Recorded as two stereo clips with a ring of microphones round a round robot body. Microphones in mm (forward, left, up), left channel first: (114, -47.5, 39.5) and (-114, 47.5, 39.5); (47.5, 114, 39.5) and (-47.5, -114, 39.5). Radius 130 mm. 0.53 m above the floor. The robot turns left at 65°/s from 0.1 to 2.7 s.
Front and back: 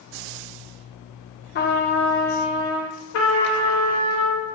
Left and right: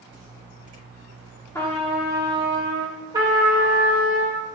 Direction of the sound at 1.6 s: 5° right.